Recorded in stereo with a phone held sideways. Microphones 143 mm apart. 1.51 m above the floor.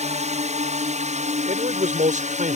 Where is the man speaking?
70° right (ahead or behind).